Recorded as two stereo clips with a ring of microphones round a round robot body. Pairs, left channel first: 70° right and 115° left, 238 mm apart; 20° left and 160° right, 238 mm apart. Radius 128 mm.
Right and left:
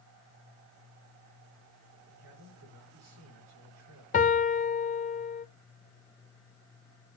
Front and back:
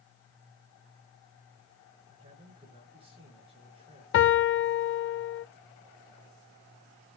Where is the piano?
10° right, 0.5 m.